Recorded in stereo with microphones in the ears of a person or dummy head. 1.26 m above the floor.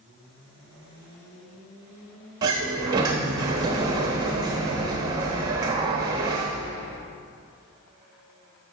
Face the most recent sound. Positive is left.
turn(degrees=-25)  # may be behind; listen again after turning